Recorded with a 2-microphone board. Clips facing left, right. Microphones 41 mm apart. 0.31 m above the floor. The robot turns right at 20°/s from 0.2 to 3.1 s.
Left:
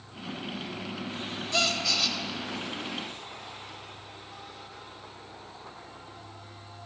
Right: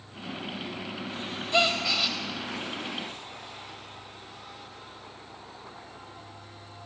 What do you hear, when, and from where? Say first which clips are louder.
1.5 s a gasp: right 3 dB; 25° right (ahead or behind), 0.6 m; by 2.2 s 15° right (ahead or behind), 0.6 m